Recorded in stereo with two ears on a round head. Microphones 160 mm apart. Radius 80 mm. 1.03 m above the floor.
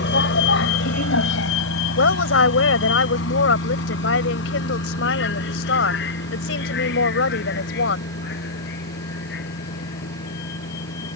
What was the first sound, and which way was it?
A vehicle, 70° left (ahead or behind).